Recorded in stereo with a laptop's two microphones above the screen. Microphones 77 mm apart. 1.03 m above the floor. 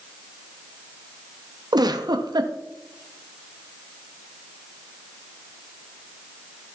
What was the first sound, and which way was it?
A giggle, 65° right (ahead or behind).